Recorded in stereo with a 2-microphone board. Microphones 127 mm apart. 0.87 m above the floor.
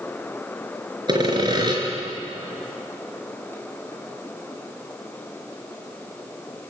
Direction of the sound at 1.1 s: 35° right (ahead or behind).